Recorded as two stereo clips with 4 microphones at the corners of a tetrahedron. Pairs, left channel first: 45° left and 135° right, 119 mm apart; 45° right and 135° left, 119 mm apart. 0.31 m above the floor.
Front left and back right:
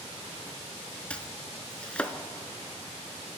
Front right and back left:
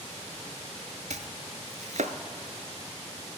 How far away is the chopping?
About 0.7 m.